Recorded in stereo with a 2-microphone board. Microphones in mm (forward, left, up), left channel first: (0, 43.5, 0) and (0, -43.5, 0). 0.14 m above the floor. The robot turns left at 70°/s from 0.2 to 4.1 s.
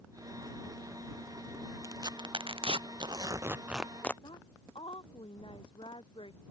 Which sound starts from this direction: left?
A woman speaking, at 4.2 s.